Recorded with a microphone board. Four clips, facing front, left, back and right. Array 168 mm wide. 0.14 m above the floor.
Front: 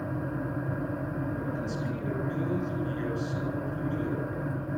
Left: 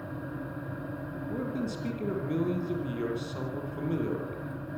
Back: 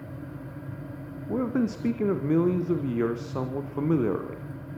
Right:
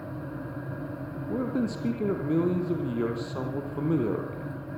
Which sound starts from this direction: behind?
A man speaking, at 1.3 s.